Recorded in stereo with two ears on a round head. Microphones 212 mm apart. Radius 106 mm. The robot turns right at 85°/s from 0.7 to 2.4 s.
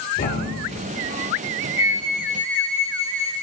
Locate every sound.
0.2 s a thud: 40° left (ahead or behind), 2.5 m; by 0.9 s 25° left (ahead or behind), 2.5 m
1.8 s a flute: 35° left, 2 m; by 3.3 s 85° left, 2 m